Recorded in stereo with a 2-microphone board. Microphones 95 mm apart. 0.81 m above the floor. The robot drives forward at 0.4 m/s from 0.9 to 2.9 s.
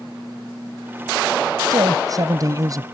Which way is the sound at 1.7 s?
45° right (ahead or behind).